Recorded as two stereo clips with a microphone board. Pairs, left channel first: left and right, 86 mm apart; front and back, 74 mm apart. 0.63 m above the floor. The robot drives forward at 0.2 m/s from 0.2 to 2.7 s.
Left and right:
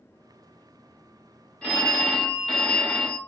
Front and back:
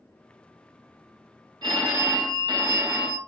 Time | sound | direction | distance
1.6 | a phone ringing | 165° left | 0.7 m